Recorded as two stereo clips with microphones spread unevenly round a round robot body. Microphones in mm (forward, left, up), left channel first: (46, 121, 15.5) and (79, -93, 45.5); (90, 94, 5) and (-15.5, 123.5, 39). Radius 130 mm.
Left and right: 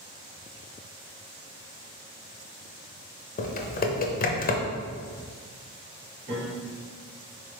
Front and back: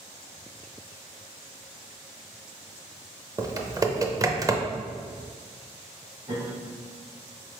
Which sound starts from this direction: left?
Typing on a keyboard, at 3.4 s.